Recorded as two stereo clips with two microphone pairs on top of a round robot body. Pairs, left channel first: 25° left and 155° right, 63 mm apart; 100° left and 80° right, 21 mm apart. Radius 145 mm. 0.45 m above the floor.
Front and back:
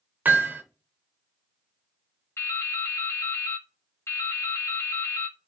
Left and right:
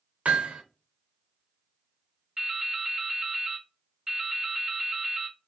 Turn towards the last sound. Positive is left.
turn(degrees=-10)